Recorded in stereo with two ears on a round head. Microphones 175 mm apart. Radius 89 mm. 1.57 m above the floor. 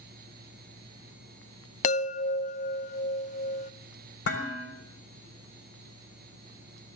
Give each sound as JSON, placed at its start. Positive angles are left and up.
{"t": 1.8, "sound": "a chime", "side_deg": 35, "distance_m": 0.5}
{"t": 4.2, "sound": "dishes clattering", "side_deg": 65, "distance_m": 4.0}